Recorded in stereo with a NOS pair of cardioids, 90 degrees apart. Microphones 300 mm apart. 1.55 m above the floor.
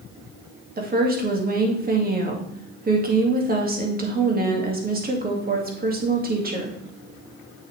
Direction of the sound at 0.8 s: 30° right.